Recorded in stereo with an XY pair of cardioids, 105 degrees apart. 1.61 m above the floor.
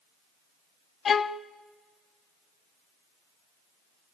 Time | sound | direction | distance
1.1 | a violin | 45° left | 0.6 m